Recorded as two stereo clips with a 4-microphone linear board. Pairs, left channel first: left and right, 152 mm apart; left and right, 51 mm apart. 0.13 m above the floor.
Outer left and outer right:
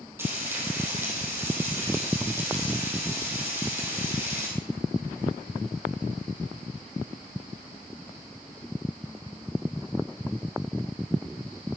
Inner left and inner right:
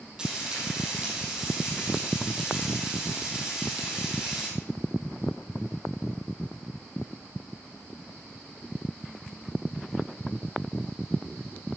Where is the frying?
15° right (ahead or behind), 4.5 m.